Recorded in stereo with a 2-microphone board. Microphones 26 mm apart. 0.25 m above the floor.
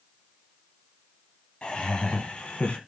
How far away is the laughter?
About 1.7 m.